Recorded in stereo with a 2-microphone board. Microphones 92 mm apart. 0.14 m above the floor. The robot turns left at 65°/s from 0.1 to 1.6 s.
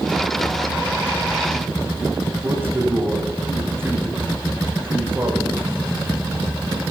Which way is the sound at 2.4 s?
25° right (ahead or behind).